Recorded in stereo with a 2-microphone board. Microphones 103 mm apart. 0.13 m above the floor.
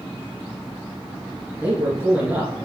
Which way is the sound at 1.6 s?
15° right (ahead or behind).